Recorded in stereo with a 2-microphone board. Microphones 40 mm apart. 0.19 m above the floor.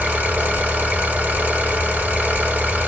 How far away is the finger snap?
No finger snap in this recording.